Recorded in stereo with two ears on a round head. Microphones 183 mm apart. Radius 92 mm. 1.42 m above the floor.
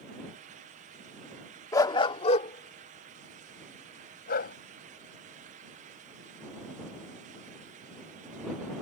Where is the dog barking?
15° left (ahead or behind); by 4.5 s 50° left (ahead or behind).